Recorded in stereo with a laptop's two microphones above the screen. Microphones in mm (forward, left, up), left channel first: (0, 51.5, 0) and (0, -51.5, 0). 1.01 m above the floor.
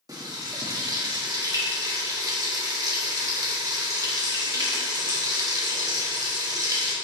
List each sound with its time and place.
0.1 s frying: 35° right (ahead or behind), 1.2 m